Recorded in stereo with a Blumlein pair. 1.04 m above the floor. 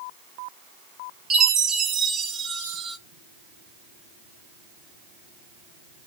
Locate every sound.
1.3 s a chime: 25° right, 0.8 m